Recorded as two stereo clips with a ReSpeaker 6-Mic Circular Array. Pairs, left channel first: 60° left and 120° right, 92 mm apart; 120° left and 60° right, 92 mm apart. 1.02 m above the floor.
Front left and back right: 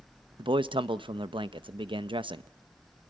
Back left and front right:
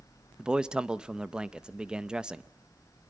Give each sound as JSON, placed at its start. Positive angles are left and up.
{"t": 0.4, "sound": "a man speaking", "azimuth_deg": -140, "distance_m": 0.6}